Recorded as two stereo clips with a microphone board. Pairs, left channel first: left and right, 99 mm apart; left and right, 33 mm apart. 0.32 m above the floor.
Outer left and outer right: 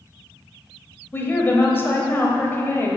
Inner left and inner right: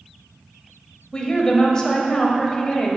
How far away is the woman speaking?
About 1.1 m.